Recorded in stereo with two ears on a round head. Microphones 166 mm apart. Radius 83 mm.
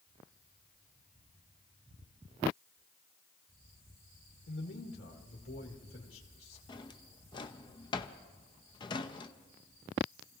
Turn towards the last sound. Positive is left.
turn(degrees=25)  # may be behind; listen again after turning